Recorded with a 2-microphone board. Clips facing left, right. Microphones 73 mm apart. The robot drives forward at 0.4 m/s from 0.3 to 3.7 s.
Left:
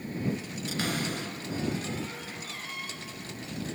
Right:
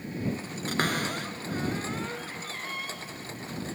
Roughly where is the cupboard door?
Right.